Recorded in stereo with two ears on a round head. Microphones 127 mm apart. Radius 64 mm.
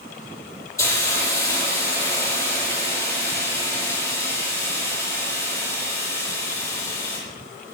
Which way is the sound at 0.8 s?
25° left (ahead or behind).